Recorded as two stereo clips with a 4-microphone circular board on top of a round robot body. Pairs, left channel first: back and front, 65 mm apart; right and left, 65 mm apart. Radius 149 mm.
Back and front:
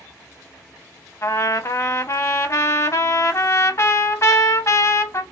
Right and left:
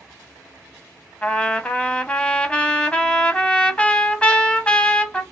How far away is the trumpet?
About 1.0 m.